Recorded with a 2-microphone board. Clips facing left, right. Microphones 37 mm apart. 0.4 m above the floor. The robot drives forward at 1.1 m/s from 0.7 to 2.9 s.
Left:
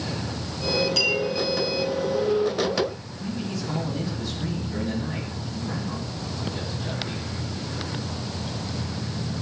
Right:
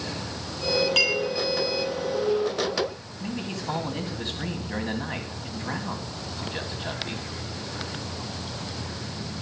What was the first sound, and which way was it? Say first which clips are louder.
A clink: right 2 dB; 45° right (ahead or behind).